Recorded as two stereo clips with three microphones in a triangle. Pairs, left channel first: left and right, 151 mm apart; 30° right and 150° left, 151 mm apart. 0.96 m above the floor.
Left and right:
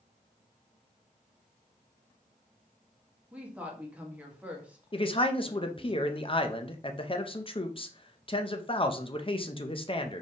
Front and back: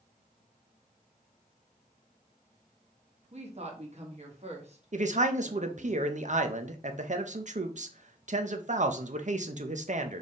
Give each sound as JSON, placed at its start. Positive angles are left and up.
{"t": 3.3, "sound": "a woman speaking", "azimuth_deg": -170, "distance_m": 1.4}
{"t": 4.9, "sound": "a man speaking", "azimuth_deg": 135, "distance_m": 0.6}